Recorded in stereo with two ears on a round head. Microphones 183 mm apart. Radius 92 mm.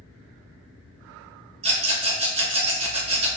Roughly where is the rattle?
Right.